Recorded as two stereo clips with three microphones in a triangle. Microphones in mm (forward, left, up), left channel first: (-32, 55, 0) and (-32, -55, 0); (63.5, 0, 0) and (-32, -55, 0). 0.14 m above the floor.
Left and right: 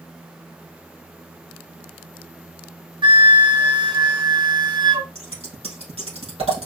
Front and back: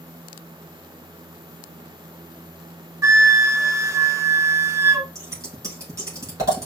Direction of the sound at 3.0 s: 100° right.